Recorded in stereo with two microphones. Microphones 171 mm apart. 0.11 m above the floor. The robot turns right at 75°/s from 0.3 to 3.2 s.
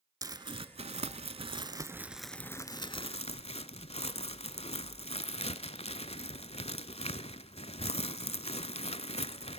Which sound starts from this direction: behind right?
Crumpling, at 0.2 s.